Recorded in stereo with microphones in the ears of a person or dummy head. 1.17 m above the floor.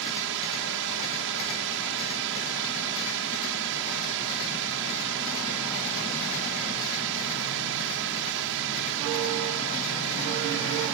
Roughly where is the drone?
Right.